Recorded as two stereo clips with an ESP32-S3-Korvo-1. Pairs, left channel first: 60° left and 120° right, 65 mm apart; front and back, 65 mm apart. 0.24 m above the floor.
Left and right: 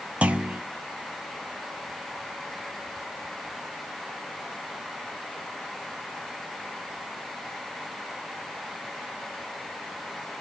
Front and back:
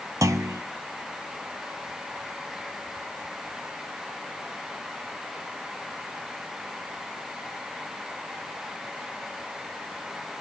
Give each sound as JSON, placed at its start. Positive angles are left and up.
{"t": 0.2, "sound": "a clunk", "azimuth_deg": 175, "distance_m": 0.6}